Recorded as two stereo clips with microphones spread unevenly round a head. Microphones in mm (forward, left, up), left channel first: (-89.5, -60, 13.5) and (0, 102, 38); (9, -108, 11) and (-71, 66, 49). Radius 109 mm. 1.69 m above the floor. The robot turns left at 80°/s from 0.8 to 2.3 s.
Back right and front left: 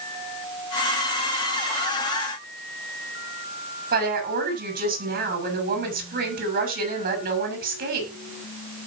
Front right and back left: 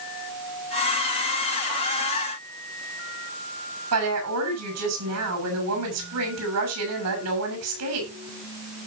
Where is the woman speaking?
100° left, 7 m.